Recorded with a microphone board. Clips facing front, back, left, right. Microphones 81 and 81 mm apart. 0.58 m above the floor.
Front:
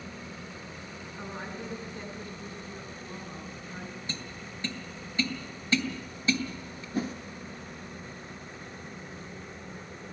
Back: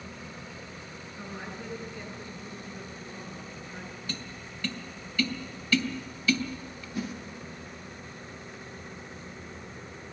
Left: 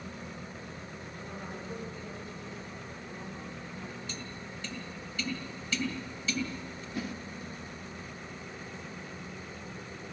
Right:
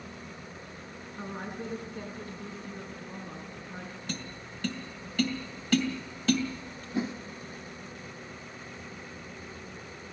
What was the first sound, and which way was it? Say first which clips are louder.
A woman speaking: front 1 dB, right 6 dB; 50° right.